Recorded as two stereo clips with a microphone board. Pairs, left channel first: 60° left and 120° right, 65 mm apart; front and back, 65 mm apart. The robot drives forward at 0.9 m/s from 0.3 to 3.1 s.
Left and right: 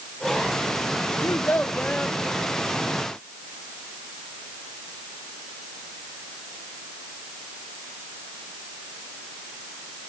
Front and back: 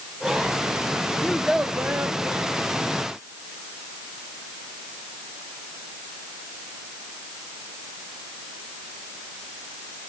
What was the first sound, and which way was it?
A child speaking, 70° left.